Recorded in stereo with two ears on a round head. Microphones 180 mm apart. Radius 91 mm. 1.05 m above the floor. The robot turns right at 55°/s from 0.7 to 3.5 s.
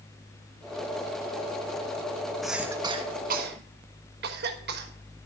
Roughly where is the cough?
Centre.